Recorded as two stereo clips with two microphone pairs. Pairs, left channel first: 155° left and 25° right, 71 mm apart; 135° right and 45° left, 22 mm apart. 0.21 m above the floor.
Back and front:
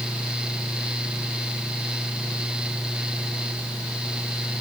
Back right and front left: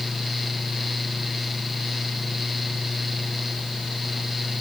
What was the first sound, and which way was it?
Only background noise.